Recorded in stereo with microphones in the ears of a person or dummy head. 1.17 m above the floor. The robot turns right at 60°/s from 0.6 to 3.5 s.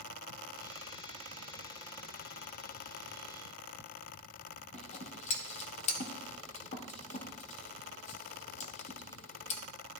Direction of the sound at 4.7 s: 40° left (ahead or behind).